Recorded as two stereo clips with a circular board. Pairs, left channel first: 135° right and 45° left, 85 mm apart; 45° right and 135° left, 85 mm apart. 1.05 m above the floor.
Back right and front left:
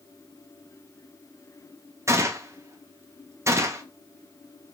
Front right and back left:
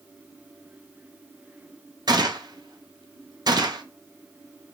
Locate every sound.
2.1 s a gunshot: 100° left, 0.5 m